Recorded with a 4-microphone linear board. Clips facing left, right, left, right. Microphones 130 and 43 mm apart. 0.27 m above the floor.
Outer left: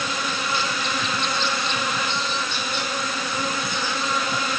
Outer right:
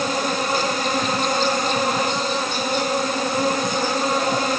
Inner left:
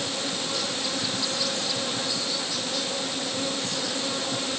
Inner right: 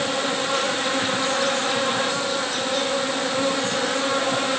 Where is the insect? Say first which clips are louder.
Outer right 6 dB, inner right 7 dB; 45° right (ahead or behind).